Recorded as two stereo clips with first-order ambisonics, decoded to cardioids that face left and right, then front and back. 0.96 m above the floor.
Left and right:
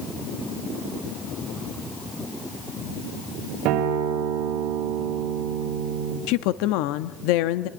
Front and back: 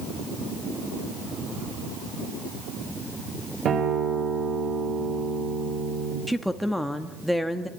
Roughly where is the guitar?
Behind right.